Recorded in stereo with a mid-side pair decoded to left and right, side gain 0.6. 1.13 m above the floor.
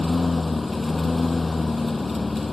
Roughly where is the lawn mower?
Ahead.